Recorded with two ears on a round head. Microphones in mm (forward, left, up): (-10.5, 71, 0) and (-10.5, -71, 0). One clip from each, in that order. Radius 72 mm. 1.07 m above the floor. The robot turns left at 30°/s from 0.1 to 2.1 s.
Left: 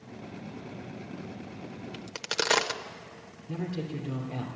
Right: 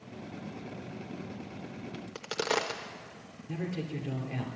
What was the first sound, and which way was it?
A crack, 35° left (ahead or behind).